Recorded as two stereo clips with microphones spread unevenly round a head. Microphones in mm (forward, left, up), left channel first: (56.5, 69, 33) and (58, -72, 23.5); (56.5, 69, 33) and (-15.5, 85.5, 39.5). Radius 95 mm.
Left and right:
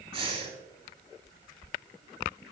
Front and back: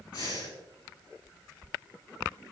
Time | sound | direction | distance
0.1 | breathing | 40° right | 5 m